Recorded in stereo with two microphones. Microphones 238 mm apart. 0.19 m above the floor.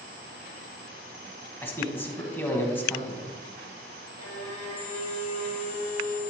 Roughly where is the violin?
Left.